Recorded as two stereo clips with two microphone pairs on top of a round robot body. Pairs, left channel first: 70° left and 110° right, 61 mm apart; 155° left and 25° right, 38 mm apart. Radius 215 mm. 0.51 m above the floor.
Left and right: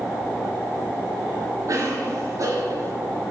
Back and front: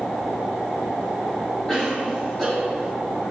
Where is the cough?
135° right, 3 m.